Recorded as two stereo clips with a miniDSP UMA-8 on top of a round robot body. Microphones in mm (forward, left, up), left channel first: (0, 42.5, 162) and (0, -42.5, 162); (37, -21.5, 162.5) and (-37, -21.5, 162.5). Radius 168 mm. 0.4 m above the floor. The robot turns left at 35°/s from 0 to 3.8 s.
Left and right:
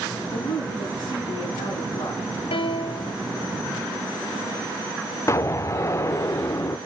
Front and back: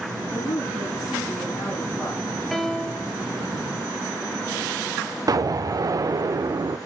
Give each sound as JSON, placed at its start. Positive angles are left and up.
{"t": 0.3, "sound": "a woman speaking", "azimuth_deg": 120, "distance_m": 7.5}
{"t": 2.5, "sound": "a piano", "azimuth_deg": 90, "distance_m": 0.9}
{"t": 5.3, "sound": "an explosion", "azimuth_deg": 145, "distance_m": 0.6}